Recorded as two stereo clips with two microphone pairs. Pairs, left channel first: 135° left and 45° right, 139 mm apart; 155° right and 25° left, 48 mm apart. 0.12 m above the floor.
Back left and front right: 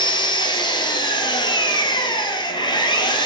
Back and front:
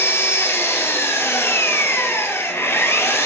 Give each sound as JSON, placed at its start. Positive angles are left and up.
{"t": 0.0, "sound": "an engine running", "azimuth_deg": -175, "distance_m": 1.0}